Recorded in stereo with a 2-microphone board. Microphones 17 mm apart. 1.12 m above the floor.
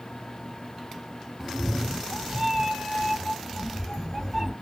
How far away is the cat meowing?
About 1.1 m.